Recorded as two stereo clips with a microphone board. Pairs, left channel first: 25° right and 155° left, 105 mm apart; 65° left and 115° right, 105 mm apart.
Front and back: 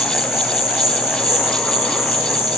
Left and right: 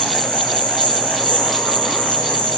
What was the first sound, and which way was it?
An insect, 105° left.